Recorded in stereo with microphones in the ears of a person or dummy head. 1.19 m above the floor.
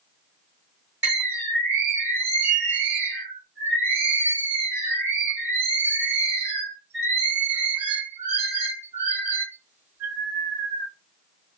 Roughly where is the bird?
Centre.